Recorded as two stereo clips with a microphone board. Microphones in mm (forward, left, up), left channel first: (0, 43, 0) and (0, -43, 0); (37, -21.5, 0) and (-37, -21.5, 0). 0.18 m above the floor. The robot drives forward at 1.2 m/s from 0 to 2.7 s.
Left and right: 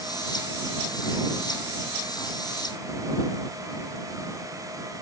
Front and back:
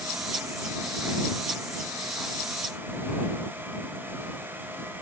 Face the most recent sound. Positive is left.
No sound to turn to.